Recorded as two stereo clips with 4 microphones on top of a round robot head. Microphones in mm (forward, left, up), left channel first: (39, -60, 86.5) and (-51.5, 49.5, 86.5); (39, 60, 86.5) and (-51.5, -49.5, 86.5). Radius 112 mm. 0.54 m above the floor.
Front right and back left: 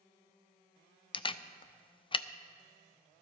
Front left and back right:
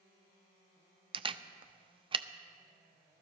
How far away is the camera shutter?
About 0.5 m.